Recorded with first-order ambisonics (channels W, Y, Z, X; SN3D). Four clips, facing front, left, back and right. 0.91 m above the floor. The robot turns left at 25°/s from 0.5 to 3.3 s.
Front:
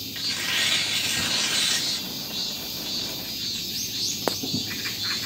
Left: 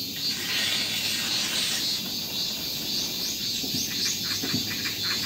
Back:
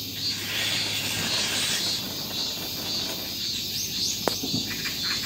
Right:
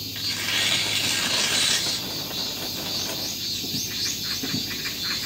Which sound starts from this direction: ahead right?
Tearing paper, at 0.1 s.